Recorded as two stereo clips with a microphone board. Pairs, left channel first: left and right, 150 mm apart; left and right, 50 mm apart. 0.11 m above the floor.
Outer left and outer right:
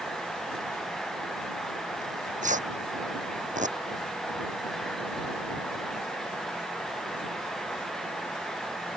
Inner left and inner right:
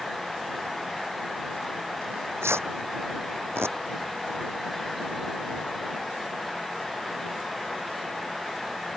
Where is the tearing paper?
55° right (ahead or behind).